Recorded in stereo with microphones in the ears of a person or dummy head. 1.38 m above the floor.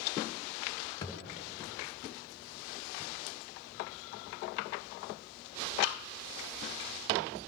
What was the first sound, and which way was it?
A thud, 15° left (ahead or behind).